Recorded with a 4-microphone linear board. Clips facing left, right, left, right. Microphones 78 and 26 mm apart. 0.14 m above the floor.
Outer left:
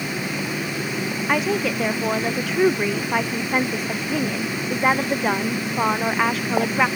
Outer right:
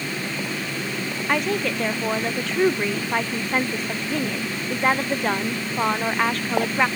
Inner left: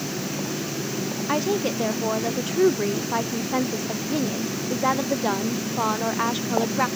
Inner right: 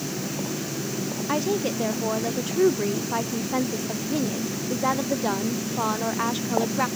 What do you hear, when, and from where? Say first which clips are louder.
1.3 s a woman speaking: outer left 1 dB, inner left 1 dB; 5° left (ahead or behind)